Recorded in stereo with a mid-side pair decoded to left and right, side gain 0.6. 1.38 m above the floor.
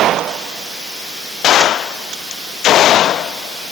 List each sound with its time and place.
Only background noise.